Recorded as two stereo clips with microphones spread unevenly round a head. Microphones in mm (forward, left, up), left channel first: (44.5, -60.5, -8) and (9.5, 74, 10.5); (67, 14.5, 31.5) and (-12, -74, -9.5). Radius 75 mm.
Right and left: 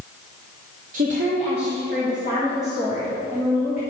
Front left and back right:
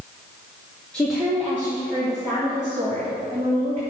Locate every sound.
0.9 s a woman speaking: 140° left, 1.2 m; by 3.8 s 175° right, 3 m